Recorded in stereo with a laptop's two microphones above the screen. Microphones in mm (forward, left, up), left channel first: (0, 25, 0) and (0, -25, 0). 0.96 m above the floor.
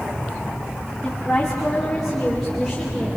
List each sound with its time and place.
1.0 s a woman speaking: 15° left (ahead or behind), 2.5 m; by 3.2 s 5° right (ahead or behind), 5 m